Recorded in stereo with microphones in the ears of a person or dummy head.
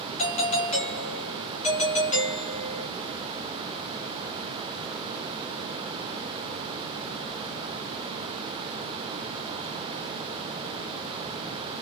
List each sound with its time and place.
0.2 s a doorbell: 35° left (ahead or behind), 1.7 m